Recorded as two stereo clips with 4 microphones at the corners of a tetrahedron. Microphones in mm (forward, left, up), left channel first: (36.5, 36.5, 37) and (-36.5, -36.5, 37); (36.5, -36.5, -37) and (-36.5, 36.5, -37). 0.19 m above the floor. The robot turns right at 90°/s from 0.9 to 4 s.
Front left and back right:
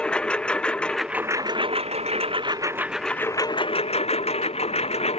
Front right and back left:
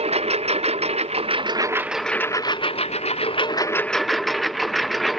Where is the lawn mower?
125° left; by 5.2 s 45° left.